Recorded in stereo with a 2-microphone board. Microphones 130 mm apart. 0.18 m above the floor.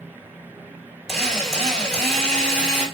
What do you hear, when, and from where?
1.1 s a drill: centre (ahead or behind), 3 m